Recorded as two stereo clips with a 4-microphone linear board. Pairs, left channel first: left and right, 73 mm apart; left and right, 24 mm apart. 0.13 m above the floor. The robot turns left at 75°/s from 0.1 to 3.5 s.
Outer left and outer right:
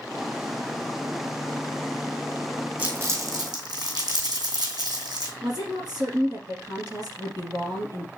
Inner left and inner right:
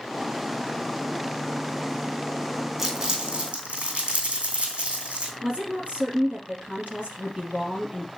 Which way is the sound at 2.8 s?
25° right (ahead or behind).